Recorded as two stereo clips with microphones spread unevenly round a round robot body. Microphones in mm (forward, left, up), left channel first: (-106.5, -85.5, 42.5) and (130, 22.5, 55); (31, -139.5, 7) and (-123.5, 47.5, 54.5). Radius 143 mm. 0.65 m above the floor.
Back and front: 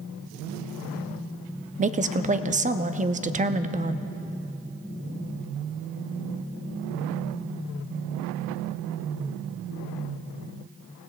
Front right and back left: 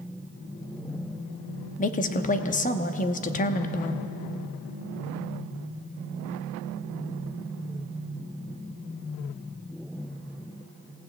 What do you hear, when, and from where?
1.8 s a woman speaking: 30° right, 0.7 m